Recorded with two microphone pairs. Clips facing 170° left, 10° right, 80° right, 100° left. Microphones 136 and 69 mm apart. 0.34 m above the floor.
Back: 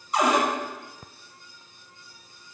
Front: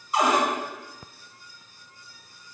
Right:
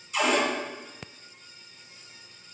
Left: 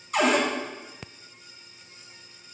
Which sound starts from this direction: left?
A cupboard door, at 0.1 s.